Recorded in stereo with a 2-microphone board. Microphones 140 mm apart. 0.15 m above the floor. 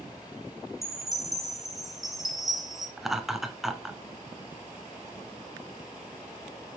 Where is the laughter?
Centre (ahead or behind), 1.2 m.